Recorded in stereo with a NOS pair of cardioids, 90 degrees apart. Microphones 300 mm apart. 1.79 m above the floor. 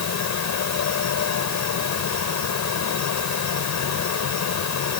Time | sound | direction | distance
0.0 | a fan | 65° left | ?